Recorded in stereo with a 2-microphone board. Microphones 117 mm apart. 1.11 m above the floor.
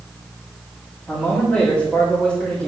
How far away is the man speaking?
About 3.5 m.